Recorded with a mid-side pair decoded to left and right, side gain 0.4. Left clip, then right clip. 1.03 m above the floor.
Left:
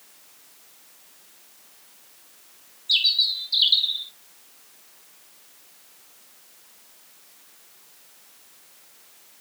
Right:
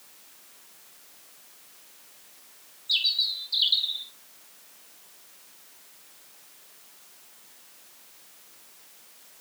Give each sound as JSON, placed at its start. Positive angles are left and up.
{"t": 2.9, "sound": "a bird", "azimuth_deg": 35, "distance_m": 0.8}